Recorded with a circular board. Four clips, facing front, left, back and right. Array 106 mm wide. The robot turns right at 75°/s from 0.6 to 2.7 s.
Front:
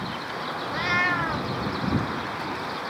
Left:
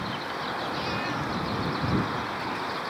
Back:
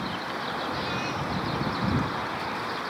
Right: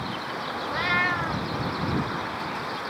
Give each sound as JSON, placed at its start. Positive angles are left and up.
{"t": 0.7, "sound": "a cat meowing", "azimuth_deg": -65}